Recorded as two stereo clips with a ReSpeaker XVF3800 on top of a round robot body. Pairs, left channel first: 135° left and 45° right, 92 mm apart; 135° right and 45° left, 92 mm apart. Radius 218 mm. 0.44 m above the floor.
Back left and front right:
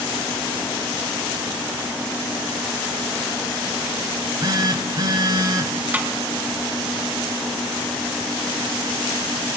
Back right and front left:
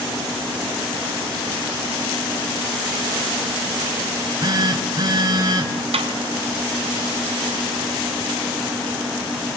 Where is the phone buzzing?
Straight ahead, 5.5 m.